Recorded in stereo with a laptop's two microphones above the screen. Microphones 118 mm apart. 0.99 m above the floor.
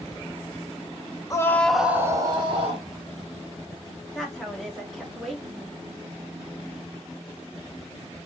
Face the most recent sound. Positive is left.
turn(degrees=5)  # may be behind; listen again after turning